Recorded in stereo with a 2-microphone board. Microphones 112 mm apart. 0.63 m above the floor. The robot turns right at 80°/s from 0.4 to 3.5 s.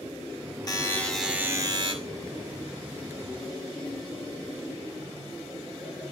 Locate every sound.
0.7 s a buzzer: 140° left, 2.0 m; by 1.9 s 120° right, 2.0 m